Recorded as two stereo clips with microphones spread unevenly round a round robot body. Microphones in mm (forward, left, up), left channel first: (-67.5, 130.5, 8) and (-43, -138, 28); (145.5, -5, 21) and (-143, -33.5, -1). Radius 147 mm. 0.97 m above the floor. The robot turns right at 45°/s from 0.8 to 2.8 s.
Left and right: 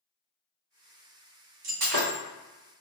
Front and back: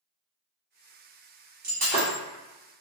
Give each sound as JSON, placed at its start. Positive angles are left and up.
{"t": 1.6, "sound": "breaking glass", "azimuth_deg": -115, "distance_m": 1.6}